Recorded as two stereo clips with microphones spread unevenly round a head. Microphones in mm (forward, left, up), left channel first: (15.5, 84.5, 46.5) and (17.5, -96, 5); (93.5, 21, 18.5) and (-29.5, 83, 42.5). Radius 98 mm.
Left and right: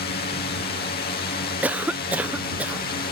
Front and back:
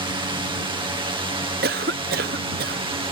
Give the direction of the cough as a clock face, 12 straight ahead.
6 o'clock.